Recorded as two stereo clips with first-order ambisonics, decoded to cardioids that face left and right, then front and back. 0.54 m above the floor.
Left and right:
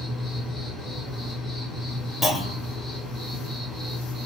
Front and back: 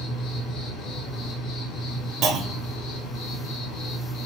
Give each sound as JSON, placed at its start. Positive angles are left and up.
{"t": 0.0, "sound": "an insect", "azimuth_deg": 5, "distance_m": 1.7}
{"t": 2.2, "sound": "a clunk", "azimuth_deg": 175, "distance_m": 0.8}